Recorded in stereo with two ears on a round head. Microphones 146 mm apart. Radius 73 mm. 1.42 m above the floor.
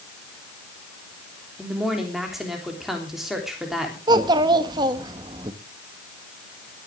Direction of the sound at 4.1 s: 25° right (ahead or behind).